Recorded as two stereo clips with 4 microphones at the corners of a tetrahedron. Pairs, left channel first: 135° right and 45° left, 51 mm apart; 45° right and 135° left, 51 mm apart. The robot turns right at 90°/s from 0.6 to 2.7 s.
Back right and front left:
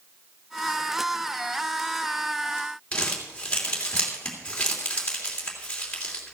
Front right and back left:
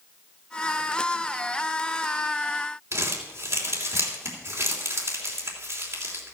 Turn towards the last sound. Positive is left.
turn(degrees=155)